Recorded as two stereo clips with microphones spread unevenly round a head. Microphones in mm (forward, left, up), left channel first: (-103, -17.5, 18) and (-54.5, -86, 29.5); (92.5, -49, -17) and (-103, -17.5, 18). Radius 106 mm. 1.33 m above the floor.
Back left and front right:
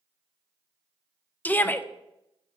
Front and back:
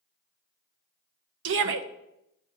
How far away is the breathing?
No breathing in this recording.